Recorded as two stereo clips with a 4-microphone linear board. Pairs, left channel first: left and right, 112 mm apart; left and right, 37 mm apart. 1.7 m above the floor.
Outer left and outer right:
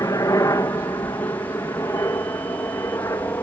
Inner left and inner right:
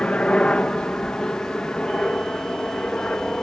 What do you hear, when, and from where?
0.0 s a helicopter: 30° left (ahead or behind); by 3.4 s 25° left (ahead or behind)